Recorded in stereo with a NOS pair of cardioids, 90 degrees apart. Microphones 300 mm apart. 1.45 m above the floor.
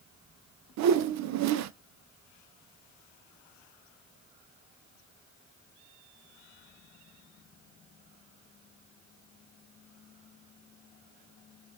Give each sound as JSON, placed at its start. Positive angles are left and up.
{"t": 0.8, "sound": "a whoosh", "azimuth_deg": -70, "distance_m": 0.6}